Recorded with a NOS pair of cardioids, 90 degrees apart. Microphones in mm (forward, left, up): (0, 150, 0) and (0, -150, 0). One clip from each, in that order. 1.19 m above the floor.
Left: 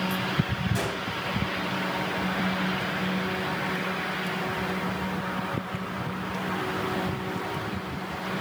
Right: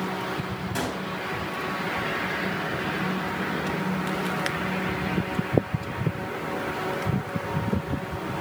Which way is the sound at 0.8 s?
30° right.